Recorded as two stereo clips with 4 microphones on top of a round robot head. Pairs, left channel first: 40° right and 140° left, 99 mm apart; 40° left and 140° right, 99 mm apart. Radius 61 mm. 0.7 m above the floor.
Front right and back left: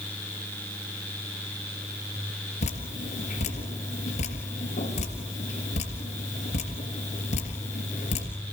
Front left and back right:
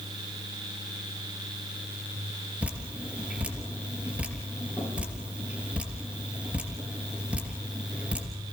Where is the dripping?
60° right, 3 m.